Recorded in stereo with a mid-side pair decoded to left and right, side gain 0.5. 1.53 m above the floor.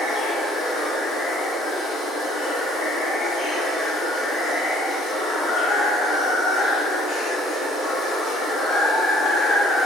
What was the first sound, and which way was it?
Running water, 65° left.